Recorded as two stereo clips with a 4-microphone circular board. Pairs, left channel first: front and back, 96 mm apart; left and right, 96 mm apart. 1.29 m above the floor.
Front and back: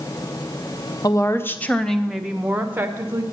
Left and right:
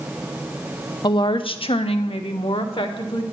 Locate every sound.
1.0 s a woman speaking: 50° left, 0.7 m; by 3.2 s 115° left, 1.2 m